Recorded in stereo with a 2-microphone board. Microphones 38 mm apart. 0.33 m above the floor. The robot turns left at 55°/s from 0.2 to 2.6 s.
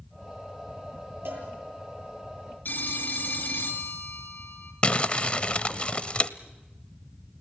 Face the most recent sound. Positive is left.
turn(degrees=30)  # may be behind; listen again after turning